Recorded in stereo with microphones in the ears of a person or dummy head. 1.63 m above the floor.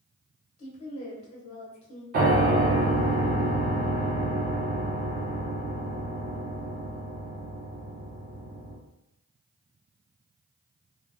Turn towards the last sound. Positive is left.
turn(degrees=-45)  # may be behind; listen again after turning